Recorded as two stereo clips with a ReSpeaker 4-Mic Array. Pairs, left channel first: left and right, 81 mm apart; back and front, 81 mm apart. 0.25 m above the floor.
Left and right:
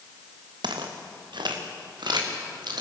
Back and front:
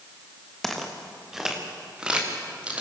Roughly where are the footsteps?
Right.